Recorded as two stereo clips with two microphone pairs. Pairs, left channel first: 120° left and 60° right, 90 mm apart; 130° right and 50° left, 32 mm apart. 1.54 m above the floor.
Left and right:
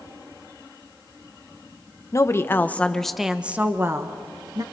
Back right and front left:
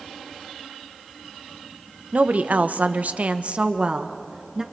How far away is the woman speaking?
About 1.0 m.